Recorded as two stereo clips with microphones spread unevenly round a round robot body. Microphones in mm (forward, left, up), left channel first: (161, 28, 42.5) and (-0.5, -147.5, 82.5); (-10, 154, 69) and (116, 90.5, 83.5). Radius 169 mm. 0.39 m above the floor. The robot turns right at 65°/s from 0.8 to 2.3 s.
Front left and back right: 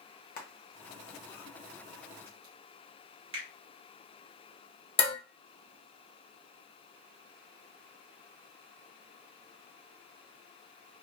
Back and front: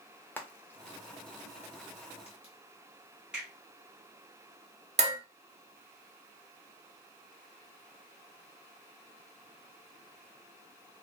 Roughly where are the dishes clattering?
Ahead.